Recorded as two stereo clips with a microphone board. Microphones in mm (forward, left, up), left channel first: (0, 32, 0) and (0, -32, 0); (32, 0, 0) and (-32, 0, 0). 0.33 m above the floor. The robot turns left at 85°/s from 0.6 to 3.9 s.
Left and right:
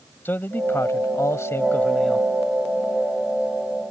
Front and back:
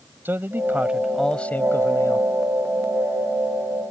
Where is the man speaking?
135° left; by 2.3 s 5° right.